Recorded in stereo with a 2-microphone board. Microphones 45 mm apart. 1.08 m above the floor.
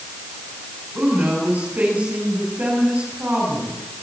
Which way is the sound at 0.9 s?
40° right (ahead or behind).